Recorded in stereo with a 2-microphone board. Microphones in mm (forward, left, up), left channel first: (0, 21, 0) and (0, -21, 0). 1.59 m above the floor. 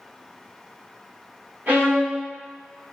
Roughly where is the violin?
Right.